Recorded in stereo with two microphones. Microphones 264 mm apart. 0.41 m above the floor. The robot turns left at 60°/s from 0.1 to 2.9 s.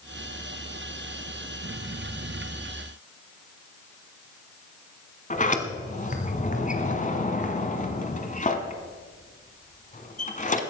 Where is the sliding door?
30° left (ahead or behind), 1.3 m.